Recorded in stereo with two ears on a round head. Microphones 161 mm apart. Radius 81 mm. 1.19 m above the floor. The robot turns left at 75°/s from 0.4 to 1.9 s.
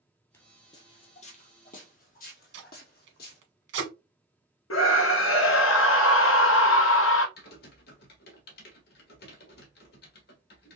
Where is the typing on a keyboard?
60° left (ahead or behind), 1.3 m.